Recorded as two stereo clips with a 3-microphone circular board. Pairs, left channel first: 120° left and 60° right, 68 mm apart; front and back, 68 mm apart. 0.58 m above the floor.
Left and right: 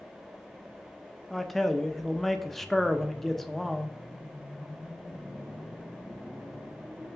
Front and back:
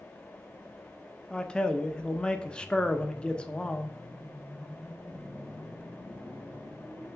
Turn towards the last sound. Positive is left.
turn(degrees=35)